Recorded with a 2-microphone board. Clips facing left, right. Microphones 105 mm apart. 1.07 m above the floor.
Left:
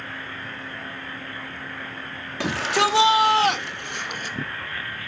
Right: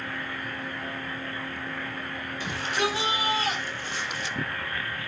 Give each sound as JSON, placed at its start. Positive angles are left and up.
{"t": 2.4, "sound": "a shout", "side_deg": 80, "distance_m": 2.0}